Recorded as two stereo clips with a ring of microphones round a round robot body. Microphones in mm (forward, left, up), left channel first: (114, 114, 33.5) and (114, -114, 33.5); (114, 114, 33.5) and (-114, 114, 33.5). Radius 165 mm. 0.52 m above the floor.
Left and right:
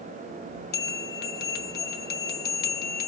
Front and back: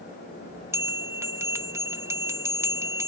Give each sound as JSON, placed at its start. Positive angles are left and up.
{"t": 0.7, "sound": "a bell", "azimuth_deg": 105, "distance_m": 0.6}